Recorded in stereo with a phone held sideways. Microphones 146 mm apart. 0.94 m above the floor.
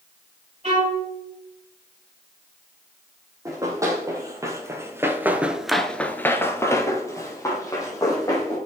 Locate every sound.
0.6 s a violin: 45° right (ahead or behind), 3 m
3.5 s running footsteps: 20° right (ahead or behind), 2.5 m; by 8.6 s 20° left (ahead or behind), 3.5 m